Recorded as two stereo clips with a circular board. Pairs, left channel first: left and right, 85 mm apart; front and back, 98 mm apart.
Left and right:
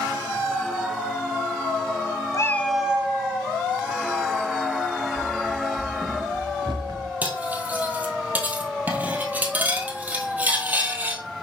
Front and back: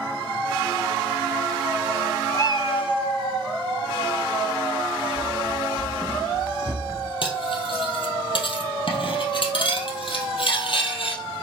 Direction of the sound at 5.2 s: 60° right.